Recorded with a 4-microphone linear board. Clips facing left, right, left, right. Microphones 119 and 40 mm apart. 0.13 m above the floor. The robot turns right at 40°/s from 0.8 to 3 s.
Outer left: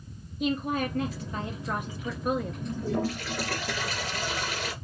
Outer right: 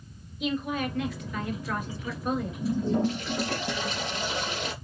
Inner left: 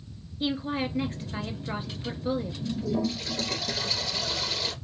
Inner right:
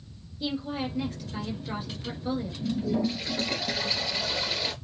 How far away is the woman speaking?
About 1.5 m.